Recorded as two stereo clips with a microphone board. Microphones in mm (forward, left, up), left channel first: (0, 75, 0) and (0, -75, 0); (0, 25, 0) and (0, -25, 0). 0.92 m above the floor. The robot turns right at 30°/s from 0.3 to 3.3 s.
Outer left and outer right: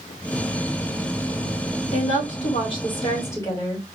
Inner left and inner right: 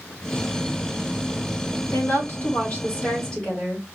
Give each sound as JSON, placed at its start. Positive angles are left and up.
{"t": 1.9, "sound": "a woman speaking", "azimuth_deg": 115, "distance_m": 2.0}